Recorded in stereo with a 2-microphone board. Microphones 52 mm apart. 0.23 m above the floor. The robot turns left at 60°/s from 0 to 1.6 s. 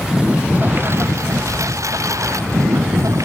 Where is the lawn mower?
Straight ahead; by 3.3 s 95° right.